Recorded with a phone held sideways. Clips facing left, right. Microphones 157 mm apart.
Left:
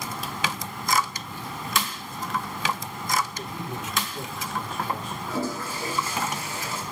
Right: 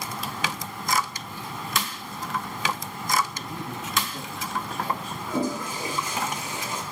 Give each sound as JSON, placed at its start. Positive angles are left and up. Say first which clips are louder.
{"t": 3.3, "sound": "a man speaking", "louder": "left 1 dB", "side_deg": -40, "distance_m": 9.0}
{"t": 5.3, "sound": "a toilet flushing", "louder": "right 3 dB", "side_deg": -20, "distance_m": 4.0}